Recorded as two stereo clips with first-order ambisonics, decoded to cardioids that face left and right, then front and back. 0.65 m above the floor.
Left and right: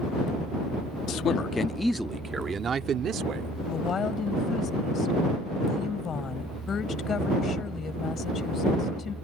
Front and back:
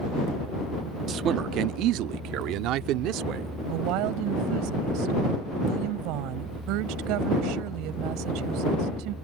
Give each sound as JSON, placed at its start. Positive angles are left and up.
{"t": 1.1, "sound": "a man speaking", "azimuth_deg": 125}
{"t": 3.7, "sound": "a woman speaking", "azimuth_deg": 155}